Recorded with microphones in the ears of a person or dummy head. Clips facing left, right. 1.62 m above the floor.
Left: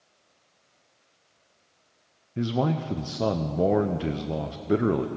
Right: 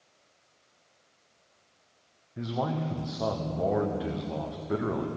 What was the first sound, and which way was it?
A man speaking, 40° left (ahead or behind).